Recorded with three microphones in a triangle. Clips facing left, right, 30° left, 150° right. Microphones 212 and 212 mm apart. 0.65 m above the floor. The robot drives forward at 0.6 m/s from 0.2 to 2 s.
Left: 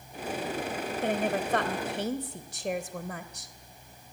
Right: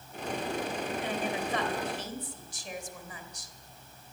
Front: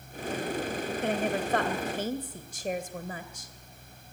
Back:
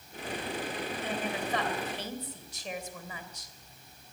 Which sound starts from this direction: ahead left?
A woman speaking, at 1.0 s.